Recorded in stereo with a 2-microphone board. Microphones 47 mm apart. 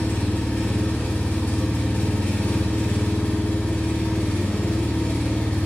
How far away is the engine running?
About 0.9 m.